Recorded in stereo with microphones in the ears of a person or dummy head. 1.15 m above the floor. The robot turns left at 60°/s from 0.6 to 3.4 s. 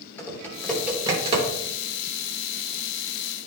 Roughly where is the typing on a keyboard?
Centre.